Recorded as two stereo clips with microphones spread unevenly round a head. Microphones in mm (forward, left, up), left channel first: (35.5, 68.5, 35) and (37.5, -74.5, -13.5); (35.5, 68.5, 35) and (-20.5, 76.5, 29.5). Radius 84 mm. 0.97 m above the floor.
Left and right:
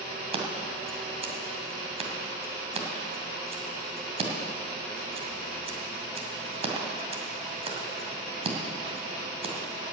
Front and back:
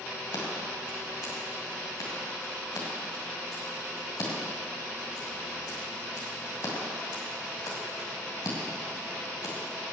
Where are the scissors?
35° right, 2 m.